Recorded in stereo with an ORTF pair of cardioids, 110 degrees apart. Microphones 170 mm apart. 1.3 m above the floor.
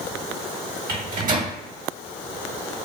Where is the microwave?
50° right, 1.2 m.